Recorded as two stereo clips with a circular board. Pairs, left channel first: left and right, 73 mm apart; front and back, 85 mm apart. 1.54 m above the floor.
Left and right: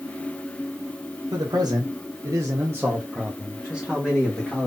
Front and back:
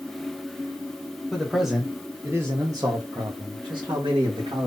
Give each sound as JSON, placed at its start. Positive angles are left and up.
{"t": 1.3, "sound": "a man speaking", "azimuth_deg": -85, "distance_m": 1.0}